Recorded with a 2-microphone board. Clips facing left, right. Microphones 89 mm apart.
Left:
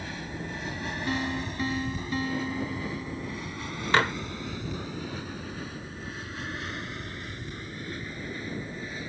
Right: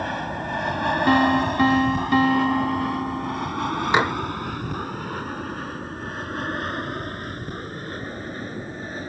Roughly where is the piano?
Right.